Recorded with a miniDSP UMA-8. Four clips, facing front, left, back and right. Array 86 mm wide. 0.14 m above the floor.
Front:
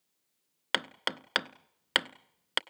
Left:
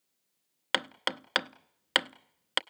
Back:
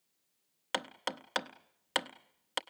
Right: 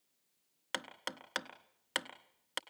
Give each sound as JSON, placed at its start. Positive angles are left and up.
{"t": 0.7, "sound": "hammering", "azimuth_deg": 55, "distance_m": 0.7}